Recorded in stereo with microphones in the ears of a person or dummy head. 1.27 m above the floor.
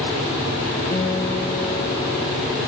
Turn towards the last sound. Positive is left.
turn(degrees=25)  # may be behind; listen again after turning